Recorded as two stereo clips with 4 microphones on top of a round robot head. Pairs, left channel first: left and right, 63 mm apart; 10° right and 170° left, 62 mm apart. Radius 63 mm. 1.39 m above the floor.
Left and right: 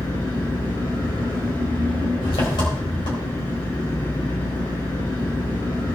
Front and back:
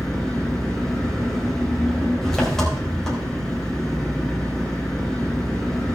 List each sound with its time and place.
0.0 s an engine running: 75° left, 4 m